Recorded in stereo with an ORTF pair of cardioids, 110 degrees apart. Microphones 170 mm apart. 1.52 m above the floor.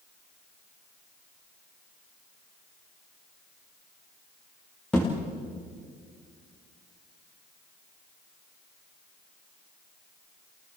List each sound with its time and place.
4.9 s a thud: 5° left, 6.5 m